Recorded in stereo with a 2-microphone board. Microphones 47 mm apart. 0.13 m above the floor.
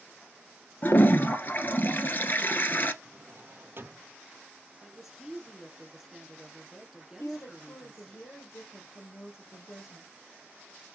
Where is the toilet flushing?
45° left (ahead or behind), 0.9 m.